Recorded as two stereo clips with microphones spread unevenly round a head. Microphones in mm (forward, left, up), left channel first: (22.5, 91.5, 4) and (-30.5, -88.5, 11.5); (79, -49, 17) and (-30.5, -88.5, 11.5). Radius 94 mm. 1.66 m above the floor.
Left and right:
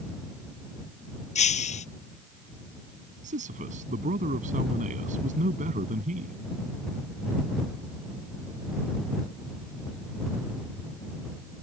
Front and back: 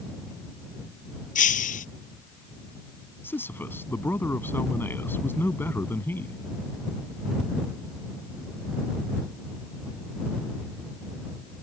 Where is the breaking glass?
15° left.